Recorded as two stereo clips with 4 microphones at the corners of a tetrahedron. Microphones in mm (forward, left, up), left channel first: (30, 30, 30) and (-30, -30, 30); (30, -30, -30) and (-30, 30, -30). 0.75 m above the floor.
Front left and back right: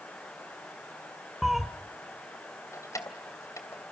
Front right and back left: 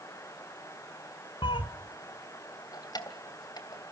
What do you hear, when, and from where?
1.4 s a cat meowing: 50° right, 1.4 m
2.7 s keys jangling: 5° right, 2.5 m